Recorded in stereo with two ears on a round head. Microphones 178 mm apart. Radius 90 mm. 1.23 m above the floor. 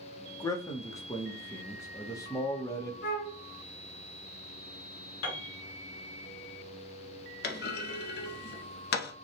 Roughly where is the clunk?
Left.